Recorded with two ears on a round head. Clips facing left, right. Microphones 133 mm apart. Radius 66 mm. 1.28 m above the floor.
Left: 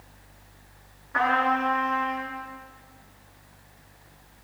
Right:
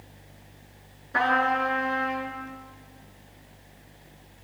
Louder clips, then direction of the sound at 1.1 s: Even; 40° right (ahead or behind).